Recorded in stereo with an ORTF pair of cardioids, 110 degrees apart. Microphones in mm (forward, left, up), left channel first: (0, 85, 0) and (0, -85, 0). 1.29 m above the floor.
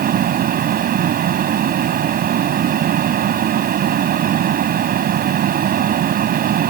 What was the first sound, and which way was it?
A fan, 55° right.